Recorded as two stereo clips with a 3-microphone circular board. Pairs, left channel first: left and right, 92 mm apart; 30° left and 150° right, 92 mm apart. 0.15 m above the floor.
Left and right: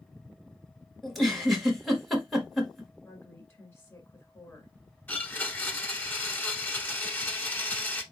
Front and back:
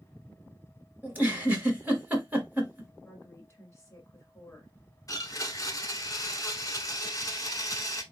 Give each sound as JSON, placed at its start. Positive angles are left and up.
{"t": 1.0, "sound": "a giggle", "azimuth_deg": 175, "distance_m": 1.2}
{"t": 3.0, "sound": "a woman speaking", "azimuth_deg": 60, "distance_m": 1.6}
{"t": 5.1, "sound": "a blender", "azimuth_deg": 35, "distance_m": 0.9}